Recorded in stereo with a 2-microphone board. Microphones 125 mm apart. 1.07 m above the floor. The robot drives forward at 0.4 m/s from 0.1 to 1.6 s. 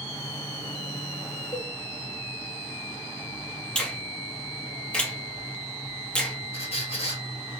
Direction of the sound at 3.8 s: 10° left (ahead or behind).